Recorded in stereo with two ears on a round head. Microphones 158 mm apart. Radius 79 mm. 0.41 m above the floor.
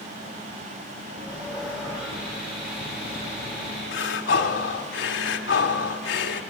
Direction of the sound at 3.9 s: 70° left (ahead or behind).